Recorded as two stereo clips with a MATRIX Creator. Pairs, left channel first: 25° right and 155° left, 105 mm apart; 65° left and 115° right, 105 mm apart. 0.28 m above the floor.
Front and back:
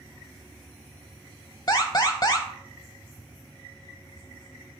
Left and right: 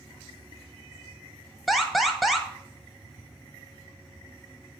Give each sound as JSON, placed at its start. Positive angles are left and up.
{"t": 1.7, "sound": "an alarm", "azimuth_deg": -25, "distance_m": 0.8}